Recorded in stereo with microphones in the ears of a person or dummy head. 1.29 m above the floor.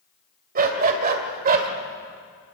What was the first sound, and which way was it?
A dog barking, 50° right (ahead or behind).